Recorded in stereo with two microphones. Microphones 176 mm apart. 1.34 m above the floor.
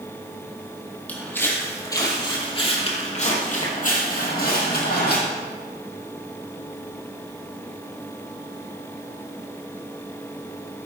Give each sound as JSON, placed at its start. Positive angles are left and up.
{"t": 1.1, "sound": "footsteps", "side_deg": 10, "distance_m": 3.0}